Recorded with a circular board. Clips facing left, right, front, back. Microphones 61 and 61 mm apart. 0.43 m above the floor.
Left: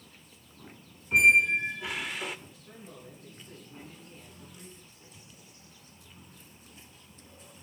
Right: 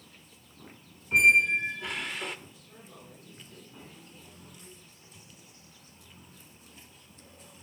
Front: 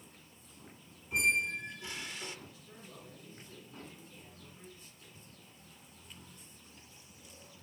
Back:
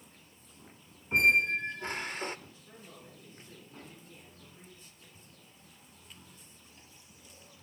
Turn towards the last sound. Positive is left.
turn(degrees=125)